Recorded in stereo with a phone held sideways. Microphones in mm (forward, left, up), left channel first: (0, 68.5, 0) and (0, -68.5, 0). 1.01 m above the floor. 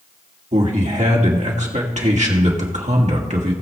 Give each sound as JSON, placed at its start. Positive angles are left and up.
{"t": 0.5, "sound": "a man speaking", "side_deg": -60, "distance_m": 1.9}